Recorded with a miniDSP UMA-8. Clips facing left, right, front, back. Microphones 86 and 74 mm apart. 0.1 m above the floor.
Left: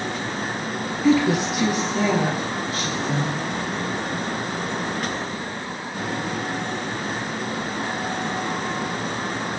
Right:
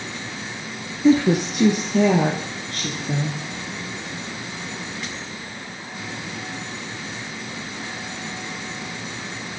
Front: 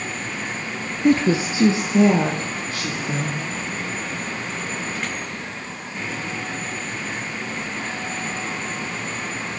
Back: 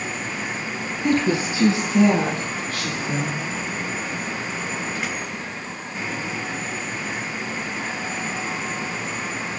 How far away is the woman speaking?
About 1.9 m.